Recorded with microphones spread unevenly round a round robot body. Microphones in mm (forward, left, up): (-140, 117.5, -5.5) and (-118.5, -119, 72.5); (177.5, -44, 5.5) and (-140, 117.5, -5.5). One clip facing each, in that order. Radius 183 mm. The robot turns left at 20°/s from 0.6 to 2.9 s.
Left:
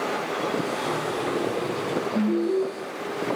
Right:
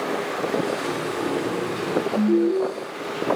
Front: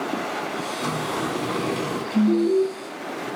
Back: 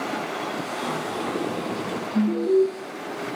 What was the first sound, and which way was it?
A sliding door, 20° left.